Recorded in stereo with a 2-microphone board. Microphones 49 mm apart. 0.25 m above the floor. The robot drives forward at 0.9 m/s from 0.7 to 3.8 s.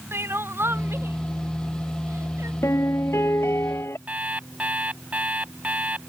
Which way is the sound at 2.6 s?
65° left (ahead or behind).